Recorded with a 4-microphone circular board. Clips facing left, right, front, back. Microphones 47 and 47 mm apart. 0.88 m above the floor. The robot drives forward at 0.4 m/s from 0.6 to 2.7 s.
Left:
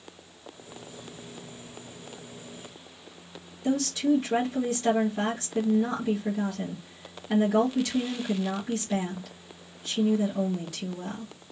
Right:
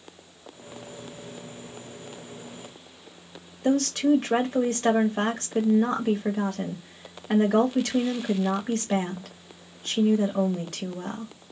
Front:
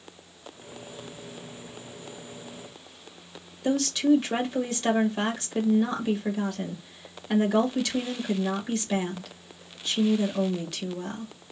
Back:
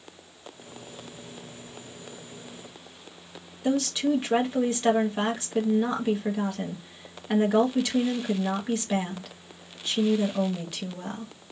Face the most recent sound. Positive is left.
turn(degrees=-110)